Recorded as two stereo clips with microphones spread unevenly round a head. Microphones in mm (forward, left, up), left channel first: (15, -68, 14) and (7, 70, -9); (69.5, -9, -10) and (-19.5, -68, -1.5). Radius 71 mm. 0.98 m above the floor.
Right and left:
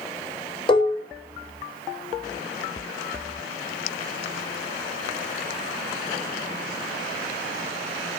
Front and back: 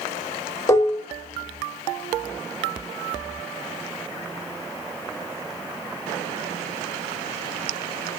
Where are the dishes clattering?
30° right, 1.0 m.